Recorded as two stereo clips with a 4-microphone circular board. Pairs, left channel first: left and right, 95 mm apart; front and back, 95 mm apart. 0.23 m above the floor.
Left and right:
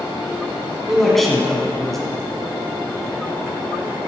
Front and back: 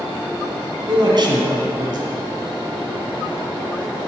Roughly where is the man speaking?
Behind.